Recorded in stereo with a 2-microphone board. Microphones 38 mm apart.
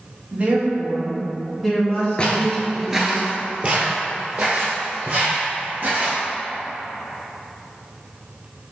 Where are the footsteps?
30° left (ahead or behind), 0.7 m; by 6.2 s 50° right (ahead or behind), 2.5 m.